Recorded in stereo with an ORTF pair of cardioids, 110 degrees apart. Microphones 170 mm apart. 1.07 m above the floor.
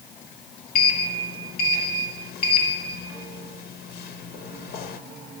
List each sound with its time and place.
0.8 s a sliding door: 70° left, 1.6 m